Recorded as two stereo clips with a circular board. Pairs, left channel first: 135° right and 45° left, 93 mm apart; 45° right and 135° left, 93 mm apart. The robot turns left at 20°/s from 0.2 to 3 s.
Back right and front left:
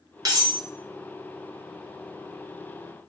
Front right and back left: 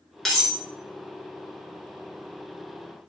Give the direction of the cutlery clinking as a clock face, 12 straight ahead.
11 o'clock.